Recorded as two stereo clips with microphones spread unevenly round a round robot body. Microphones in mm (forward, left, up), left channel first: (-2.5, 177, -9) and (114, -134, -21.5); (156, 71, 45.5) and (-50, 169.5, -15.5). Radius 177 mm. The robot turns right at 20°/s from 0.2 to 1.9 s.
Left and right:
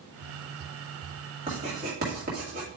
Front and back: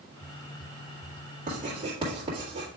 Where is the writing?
145° right, 1.7 m; by 2.7 s 135° right, 1.7 m.